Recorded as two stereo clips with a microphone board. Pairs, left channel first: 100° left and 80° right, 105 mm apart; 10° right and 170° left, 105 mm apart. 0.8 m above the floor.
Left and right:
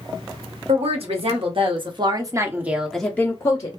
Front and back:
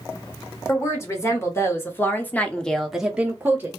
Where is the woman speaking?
75° right, 1.2 m; by 3.7 s 105° left, 0.6 m.